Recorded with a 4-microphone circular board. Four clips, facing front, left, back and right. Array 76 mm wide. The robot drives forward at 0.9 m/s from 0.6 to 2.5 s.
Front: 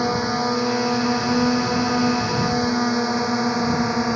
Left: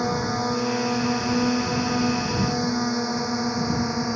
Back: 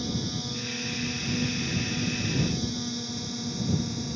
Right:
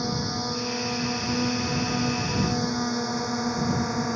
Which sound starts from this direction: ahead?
A drone, at 0.0 s.